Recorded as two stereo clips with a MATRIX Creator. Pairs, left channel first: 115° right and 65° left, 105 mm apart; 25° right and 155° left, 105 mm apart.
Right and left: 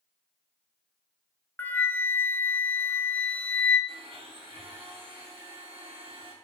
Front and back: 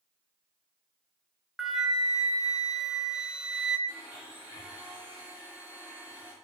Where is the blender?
85° left, 5 m.